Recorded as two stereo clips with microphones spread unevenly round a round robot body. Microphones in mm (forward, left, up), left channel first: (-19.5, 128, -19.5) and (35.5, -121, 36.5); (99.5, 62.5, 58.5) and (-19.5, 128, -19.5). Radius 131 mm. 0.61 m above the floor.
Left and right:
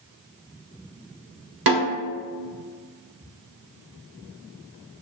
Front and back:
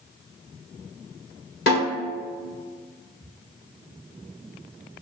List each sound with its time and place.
1.7 s a snare drum: 70° right, 1.4 m